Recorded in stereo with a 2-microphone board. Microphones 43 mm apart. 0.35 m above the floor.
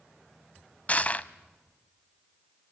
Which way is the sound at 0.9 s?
30° left (ahead or behind).